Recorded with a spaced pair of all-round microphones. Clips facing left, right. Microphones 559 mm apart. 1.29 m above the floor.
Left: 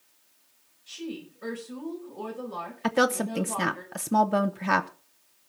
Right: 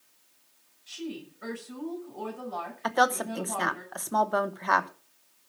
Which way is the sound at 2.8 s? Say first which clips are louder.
Left 4 dB; 50° left (ahead or behind).